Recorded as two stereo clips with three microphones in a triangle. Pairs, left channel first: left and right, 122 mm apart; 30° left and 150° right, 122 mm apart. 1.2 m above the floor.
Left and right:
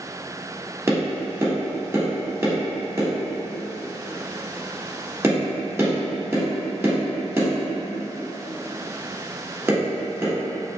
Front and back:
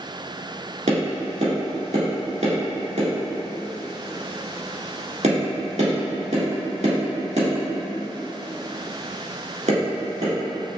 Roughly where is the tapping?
Behind.